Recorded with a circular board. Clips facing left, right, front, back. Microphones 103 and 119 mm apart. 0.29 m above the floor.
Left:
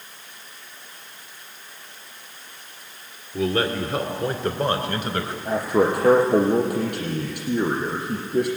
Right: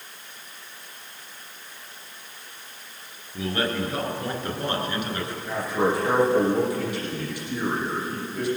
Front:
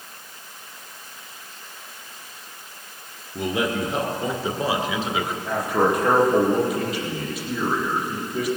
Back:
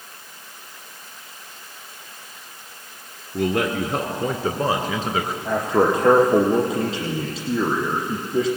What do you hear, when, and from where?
3.3 s a man speaking: 150° left, 3.5 m; by 5.3 s 130° left, 3 m
5.5 s a man speaking: 120° left, 8.5 m